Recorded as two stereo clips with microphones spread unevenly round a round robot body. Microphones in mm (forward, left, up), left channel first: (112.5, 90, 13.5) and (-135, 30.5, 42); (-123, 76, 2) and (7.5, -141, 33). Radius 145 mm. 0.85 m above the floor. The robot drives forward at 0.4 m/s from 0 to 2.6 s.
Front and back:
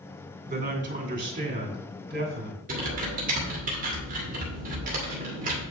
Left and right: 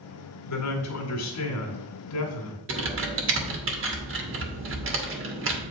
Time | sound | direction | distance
0.5 | a man speaking | 130° left | 2.0 m
2.7 | typing on a keyboard | 100° right | 1.9 m